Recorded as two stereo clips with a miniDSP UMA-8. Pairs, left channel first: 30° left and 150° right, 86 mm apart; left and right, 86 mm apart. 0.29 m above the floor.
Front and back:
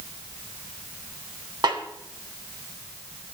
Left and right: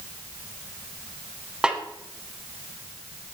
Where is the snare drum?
170° right, 2 m.